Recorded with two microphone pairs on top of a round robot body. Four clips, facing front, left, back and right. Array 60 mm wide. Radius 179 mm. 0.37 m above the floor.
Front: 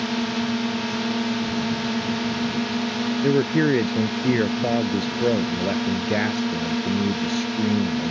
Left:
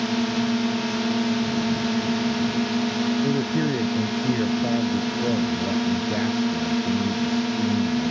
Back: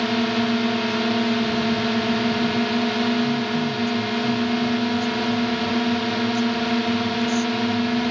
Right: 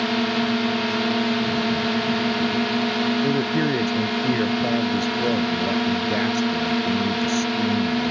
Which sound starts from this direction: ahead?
A man speaking, at 3.2 s.